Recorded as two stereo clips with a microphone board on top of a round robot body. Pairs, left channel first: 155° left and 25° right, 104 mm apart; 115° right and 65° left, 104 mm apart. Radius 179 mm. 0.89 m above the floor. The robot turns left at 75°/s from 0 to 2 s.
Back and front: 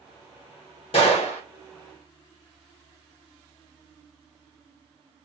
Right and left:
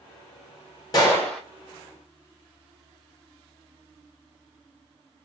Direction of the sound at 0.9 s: 165° right.